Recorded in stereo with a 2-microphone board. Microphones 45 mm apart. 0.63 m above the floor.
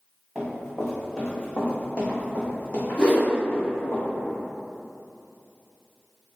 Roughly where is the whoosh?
Left.